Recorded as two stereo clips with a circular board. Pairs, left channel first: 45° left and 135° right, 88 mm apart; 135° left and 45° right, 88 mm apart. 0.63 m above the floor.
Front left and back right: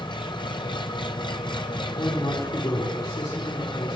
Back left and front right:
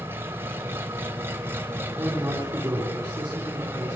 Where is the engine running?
20° left, 2.5 m.